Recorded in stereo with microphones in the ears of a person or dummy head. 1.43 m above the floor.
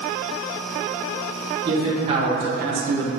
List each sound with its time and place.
1.6 s a man speaking: 30° right (ahead or behind), 2.5 m; by 3.1 s 80° right, 0.8 m